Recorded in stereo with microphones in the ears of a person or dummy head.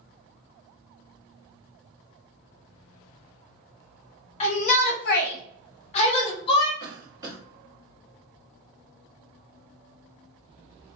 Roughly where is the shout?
Left.